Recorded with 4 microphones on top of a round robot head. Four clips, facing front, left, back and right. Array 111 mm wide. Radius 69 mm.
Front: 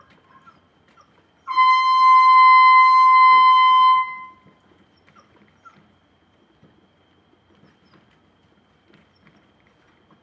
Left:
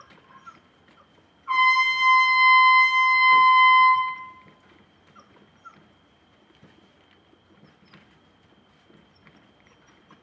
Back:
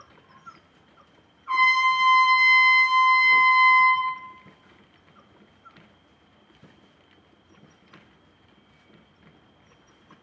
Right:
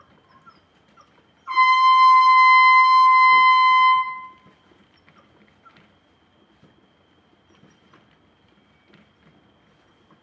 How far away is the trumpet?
About 1.7 m.